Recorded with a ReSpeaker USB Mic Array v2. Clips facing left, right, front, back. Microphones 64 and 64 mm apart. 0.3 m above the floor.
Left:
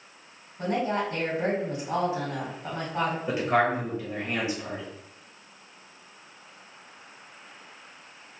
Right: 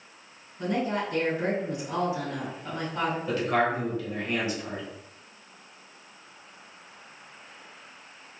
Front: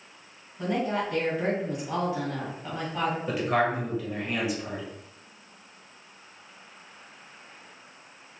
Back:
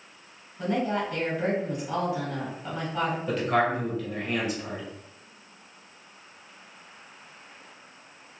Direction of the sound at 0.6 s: 90° left.